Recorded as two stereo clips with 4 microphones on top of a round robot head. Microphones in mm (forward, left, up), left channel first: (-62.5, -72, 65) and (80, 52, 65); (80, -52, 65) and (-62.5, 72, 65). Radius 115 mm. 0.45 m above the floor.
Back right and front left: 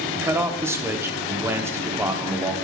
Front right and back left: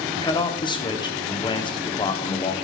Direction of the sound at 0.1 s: 20° right.